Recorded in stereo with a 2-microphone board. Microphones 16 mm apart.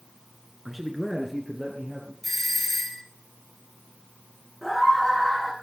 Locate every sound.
0.7 s a man speaking: 15° right (ahead or behind), 1.4 m; by 2.1 s 10° right (ahead or behind), 3 m
2.2 s a doorbell: 15° left (ahead or behind), 3 m
4.6 s a scream: 5° right (ahead or behind), 8 m